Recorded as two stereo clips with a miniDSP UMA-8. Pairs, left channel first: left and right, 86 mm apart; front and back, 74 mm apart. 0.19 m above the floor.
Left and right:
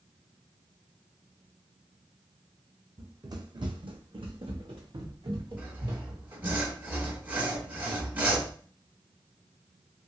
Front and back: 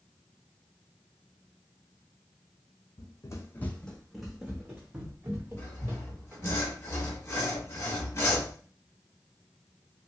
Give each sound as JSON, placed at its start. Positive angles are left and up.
{"t": 3.0, "sound": "running footsteps", "azimuth_deg": -35, "distance_m": 0.7}
{"t": 5.6, "sound": "sawing", "azimuth_deg": -35, "distance_m": 1.2}